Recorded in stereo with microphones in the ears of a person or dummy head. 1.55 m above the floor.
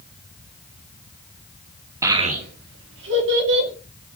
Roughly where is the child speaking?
Centre.